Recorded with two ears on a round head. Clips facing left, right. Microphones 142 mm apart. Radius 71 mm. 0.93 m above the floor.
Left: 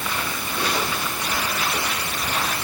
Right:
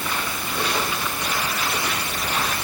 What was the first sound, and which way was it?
Only background noise.